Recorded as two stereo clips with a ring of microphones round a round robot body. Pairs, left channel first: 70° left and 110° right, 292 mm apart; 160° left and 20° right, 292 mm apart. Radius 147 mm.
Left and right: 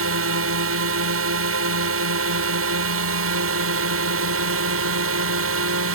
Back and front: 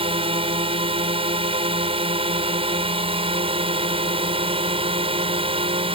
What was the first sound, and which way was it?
A drone, 90° right.